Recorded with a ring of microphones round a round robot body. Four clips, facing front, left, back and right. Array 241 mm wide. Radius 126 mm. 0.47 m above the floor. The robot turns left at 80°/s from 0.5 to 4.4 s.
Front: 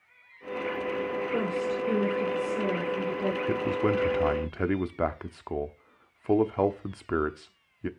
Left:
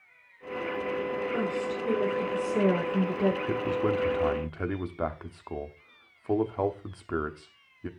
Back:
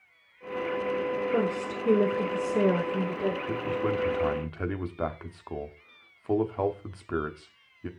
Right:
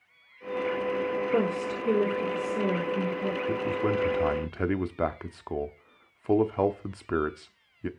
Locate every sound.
1.3 s a woman speaking: 110° right, 2.0 m; by 3.4 s 85° left, 2.0 m
3.5 s a man speaking: 30° left, 1.1 m; by 7.9 s 45° right, 1.1 m